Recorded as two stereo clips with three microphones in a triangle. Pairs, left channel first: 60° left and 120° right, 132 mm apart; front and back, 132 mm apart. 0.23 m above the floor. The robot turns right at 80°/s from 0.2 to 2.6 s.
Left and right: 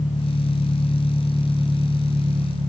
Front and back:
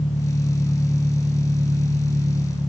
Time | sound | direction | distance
0.0 | an engine running | 30° left | 8.5 m